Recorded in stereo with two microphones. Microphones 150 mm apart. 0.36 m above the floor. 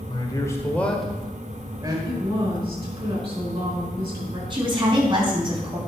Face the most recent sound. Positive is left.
turn(degrees=-35)  # may be behind; listen again after turning